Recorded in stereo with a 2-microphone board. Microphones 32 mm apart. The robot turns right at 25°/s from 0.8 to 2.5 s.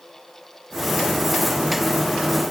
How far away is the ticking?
I don't hear ticking.